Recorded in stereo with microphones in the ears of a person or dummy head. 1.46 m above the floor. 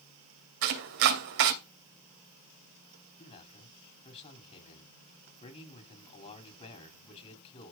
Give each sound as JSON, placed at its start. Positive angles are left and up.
{"t": 0.6, "sound": "chopping", "side_deg": -60, "distance_m": 2.0}
{"t": 3.2, "sound": "a man speaking", "side_deg": 45, "distance_m": 5.5}